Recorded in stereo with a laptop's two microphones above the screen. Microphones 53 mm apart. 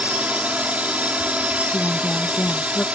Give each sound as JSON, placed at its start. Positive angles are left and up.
{"t": 0.0, "sound": "a drone", "side_deg": -25}
{"t": 1.7, "sound": "a woman speaking", "side_deg": 35}